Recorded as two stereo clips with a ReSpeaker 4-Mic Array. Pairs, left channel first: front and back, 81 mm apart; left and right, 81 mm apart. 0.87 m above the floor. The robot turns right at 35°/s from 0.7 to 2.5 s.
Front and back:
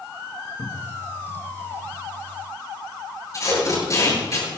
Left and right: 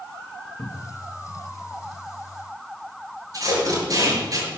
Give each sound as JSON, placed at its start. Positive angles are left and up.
{"t": 0.6, "sound": "a cupboard door", "azimuth_deg": 45, "distance_m": 1.2}
{"t": 3.3, "sound": "tape being pulled", "azimuth_deg": -45, "distance_m": 8.5}